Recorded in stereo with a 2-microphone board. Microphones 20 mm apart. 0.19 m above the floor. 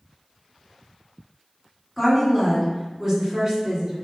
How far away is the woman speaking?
About 1.7 m.